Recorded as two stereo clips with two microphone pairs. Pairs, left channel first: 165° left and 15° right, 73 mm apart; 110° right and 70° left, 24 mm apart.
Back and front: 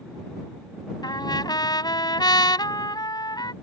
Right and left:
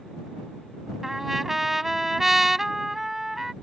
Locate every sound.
1.0 s a trumpet: 150° left